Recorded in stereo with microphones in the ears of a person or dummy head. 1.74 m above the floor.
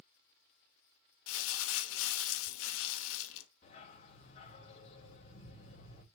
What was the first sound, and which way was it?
Crumpling, 80° left.